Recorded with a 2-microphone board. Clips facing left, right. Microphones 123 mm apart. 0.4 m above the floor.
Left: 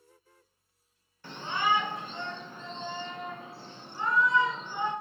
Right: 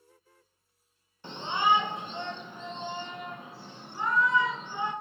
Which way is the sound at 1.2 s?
25° right (ahead or behind).